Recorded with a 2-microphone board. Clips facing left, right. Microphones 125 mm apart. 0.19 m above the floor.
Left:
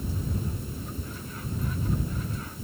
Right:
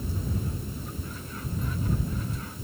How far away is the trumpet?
No trumpet in this recording.